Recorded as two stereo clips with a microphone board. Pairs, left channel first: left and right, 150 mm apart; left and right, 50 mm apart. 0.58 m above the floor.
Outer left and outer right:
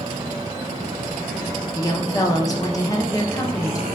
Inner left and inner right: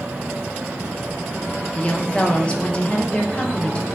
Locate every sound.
1.8 s a woman speaking: 25° left (ahead or behind), 0.6 m